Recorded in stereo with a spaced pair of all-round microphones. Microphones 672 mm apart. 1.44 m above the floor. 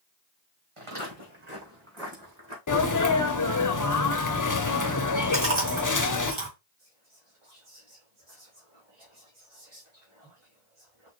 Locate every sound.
0.8 s footsteps: 50° right (ahead or behind), 3.5 m; by 2.6 s 35° right (ahead or behind), 4 m
2.7 s a sneeze: 30° left (ahead or behind), 0.6 m
5.3 s chewing: 45° right (ahead or behind), 2.5 m
6.8 s whispering: 40° right (ahead or behind), 1.9 m